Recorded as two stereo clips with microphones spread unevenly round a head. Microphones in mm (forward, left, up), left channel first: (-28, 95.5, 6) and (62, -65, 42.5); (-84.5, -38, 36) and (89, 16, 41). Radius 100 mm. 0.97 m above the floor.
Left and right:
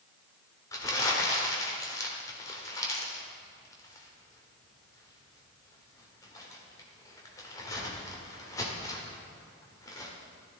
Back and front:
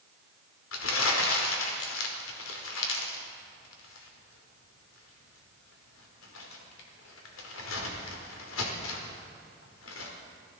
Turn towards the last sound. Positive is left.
turn(degrees=-165)